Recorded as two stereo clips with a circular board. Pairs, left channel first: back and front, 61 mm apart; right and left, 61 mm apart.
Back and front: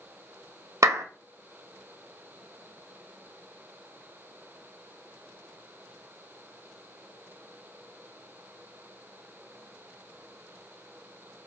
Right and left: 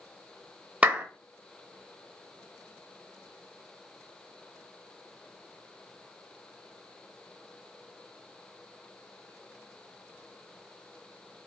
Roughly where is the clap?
Ahead.